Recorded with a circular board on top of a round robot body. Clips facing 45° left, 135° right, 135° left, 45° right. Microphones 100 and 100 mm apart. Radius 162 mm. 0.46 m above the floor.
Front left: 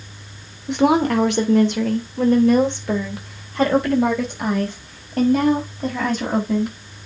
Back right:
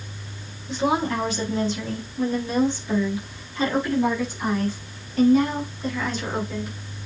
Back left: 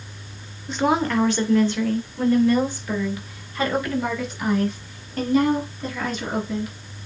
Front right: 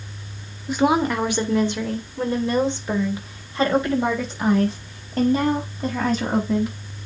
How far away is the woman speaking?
About 2 m.